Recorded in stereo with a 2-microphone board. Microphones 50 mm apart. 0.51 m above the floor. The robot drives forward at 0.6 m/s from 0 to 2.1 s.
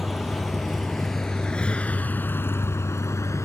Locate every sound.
0.0 s a vehicle: 5° right (ahead or behind); by 3.5 s 85° left